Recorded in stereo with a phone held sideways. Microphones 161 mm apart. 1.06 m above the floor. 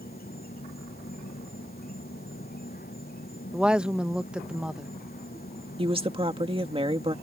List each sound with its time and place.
0.0 s an insect: 70° left (ahead or behind)
3.5 s a woman speaking: 5° right (ahead or behind)
5.8 s a woman speaking: 35° right (ahead or behind)